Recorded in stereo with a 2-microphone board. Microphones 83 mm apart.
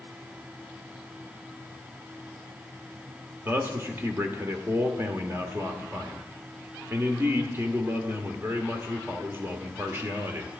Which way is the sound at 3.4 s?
25° right (ahead or behind).